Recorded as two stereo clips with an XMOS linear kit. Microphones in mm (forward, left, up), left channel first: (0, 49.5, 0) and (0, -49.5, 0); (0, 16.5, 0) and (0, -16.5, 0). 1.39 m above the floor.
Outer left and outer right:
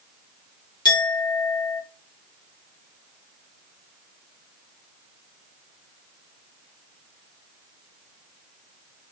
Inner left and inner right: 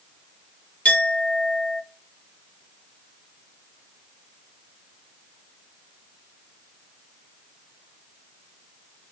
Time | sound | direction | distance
0.8 | a clink | 45° left (ahead or behind) | 1.8 m